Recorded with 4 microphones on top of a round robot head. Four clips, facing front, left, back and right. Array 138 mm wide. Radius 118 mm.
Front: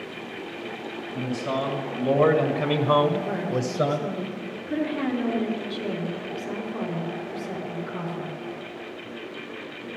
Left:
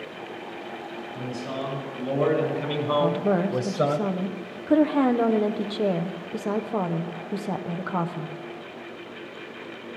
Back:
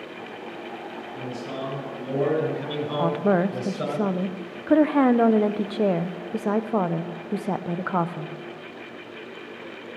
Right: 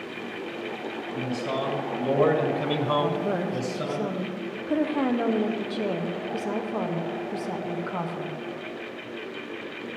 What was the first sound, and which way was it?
A man speaking, 30° right.